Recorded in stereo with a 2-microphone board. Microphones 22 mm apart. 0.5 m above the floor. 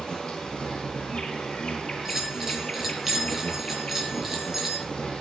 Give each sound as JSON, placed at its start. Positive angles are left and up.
{"t": 0.0, "sound": "an insect", "side_deg": 35, "distance_m": 10.0}
{"t": 2.0, "sound": "a bell", "side_deg": -10, "distance_m": 4.5}